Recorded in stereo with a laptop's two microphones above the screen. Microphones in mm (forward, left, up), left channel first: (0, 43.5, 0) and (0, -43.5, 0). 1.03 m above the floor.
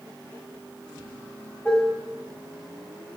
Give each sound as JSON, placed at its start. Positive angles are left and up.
{"t": 1.6, "sound": "dishes clattering", "side_deg": 25, "distance_m": 4.0}